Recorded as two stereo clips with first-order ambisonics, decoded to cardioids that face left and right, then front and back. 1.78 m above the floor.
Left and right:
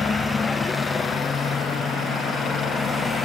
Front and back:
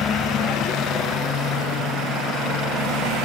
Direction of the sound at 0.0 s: 25° left.